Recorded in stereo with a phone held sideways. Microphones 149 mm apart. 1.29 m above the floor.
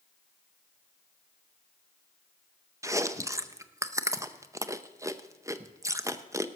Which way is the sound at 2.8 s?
20° right (ahead or behind).